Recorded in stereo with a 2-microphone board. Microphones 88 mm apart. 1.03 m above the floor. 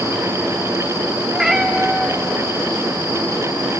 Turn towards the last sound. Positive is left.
turn(degrees=-5)  # may be behind; listen again after turning